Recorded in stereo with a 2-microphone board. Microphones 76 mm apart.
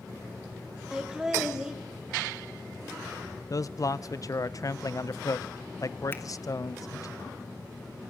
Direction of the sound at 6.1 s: 30° left (ahead or behind).